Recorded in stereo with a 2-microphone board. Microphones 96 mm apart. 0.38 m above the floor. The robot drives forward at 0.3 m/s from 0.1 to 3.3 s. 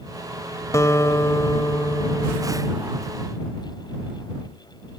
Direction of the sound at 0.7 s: 35° left (ahead or behind).